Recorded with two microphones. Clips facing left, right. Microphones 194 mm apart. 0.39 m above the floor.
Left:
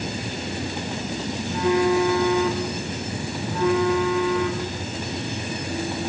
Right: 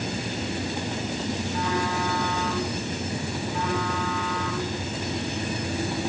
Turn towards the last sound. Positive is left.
turn(degrees=50)  # may be behind; listen again after turning